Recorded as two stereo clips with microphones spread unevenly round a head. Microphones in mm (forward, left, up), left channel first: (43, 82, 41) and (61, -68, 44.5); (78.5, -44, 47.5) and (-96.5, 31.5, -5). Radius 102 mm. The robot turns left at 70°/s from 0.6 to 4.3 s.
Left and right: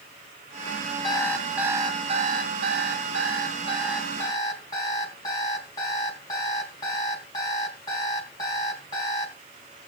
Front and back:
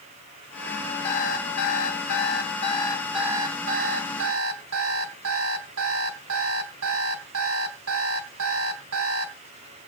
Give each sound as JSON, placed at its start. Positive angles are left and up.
{"t": 1.0, "sound": "an alarm clock", "azimuth_deg": 35, "distance_m": 3.5}